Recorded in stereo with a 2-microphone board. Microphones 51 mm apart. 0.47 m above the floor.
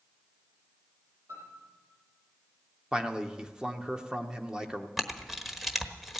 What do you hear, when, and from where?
1.3 s a piano: 70° right (ahead or behind), 7.5 m
2.9 s a man speaking: 15° right (ahead or behind), 1.0 m
5.0 s a camera shutter: 5° right (ahead or behind), 1.2 m